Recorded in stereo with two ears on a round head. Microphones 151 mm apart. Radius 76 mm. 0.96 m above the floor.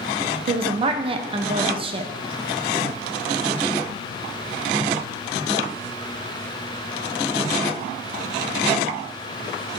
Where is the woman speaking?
35° right (ahead or behind), 0.6 m.